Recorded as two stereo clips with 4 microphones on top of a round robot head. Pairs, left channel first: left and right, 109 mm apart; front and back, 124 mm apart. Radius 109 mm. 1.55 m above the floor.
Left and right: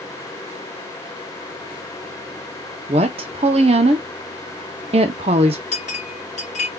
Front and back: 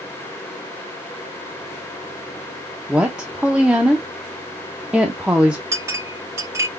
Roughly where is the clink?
Behind left.